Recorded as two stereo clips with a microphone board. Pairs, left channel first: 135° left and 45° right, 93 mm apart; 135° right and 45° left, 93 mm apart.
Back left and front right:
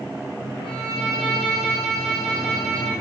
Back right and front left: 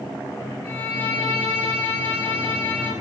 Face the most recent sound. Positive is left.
turn(degrees=155)